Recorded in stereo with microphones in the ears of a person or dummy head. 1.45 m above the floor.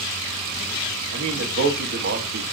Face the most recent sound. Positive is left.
turn(degrees=-65)  # may be behind; listen again after turning